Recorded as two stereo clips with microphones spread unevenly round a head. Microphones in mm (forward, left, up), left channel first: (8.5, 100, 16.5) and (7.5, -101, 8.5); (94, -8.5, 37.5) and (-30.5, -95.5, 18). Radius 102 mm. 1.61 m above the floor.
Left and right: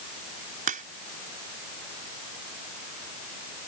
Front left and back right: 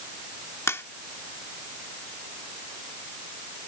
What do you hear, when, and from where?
0.7 s a crack: 40° right